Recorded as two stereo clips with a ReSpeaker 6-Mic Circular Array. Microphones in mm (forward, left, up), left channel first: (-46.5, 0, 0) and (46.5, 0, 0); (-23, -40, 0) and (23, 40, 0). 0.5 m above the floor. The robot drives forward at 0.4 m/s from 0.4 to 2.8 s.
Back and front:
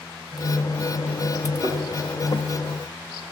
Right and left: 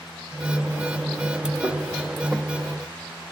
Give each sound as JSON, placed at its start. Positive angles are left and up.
{"t": 1.6, "sound": "a thud", "azimuth_deg": -5, "distance_m": 9.0}